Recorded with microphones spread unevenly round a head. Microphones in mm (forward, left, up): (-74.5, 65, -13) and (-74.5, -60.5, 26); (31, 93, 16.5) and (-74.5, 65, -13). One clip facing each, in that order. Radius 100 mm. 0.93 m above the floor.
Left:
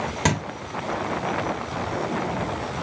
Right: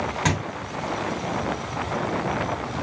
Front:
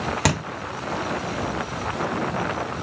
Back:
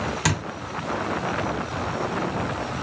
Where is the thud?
20° left, 1.1 m.